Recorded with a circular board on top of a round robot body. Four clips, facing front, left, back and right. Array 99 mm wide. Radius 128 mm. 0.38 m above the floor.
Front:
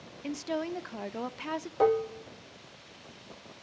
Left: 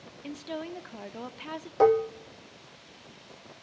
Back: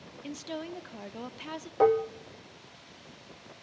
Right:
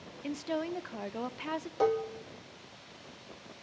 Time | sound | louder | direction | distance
0.2 | a woman speaking | right 3 dB, front 5 dB | 30° right | 1.0 m
1.8 | dishes clattering | left 8 dB, back 2 dB | 110° left | 0.8 m